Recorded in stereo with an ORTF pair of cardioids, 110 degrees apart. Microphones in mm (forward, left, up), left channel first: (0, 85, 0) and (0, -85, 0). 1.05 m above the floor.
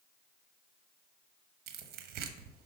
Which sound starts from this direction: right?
Tearing paper, at 1.7 s.